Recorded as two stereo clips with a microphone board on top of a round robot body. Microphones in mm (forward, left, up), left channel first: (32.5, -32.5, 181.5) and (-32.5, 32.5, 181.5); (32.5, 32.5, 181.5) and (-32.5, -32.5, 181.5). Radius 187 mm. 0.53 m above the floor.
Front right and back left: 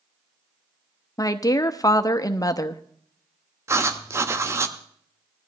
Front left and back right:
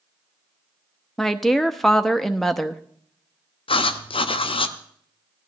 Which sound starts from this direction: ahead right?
A woman speaking, at 1.2 s.